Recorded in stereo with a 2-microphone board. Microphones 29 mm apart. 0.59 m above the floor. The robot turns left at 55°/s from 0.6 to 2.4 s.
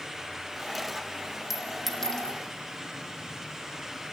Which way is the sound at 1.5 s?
5° right (ahead or behind).